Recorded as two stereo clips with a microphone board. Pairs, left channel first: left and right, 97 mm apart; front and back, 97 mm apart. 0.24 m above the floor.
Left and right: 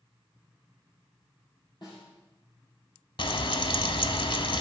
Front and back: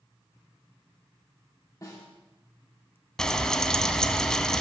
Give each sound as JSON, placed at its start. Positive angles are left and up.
{"t": 1.8, "sound": "a snare drum", "azimuth_deg": 55, "distance_m": 5.5}
{"t": 3.2, "sound": "frying", "azimuth_deg": 80, "distance_m": 0.7}